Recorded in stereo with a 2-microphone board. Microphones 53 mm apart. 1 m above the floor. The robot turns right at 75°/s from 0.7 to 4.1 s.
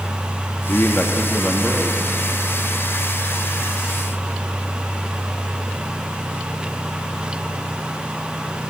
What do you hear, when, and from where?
0.7 s a man speaking: 125° left, 1.8 m; by 2.0 s 135° right, 1.8 m